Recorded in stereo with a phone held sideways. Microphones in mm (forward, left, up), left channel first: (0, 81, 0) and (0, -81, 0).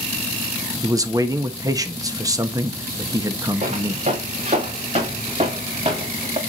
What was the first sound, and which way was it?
A man speaking, 20° right (ahead or behind).